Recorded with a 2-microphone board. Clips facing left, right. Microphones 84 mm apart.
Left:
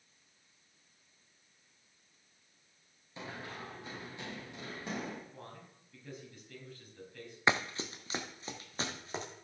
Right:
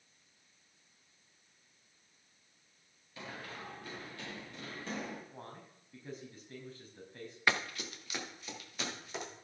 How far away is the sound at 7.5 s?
About 0.9 m.